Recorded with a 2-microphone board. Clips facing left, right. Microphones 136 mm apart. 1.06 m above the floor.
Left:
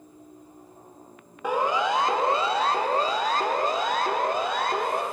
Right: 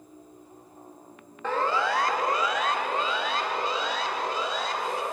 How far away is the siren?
About 2.5 m.